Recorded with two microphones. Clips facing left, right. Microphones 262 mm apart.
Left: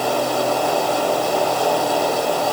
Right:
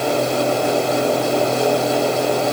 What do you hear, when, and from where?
Only background noise.